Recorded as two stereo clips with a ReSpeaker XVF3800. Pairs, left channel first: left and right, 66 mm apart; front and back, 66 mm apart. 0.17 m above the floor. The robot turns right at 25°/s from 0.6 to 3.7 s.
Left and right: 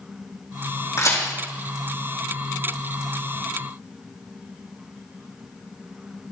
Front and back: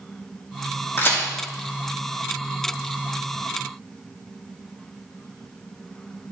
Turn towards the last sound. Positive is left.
turn(degrees=120)